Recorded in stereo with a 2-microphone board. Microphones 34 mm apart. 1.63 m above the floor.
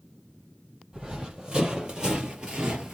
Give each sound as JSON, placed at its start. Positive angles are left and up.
{"t": 0.9, "sound": "running footsteps", "side_deg": -25, "distance_m": 2.5}